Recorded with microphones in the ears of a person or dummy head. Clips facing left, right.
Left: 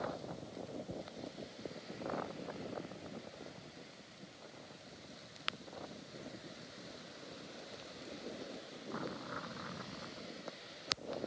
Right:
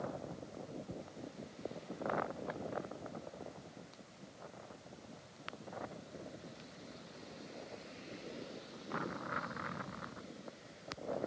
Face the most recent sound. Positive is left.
No sound to turn to.